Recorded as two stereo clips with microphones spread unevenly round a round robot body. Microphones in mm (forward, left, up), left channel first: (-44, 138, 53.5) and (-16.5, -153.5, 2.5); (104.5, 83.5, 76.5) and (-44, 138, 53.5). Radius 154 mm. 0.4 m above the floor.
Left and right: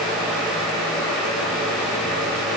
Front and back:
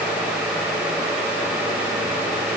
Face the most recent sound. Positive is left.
No sound to turn to.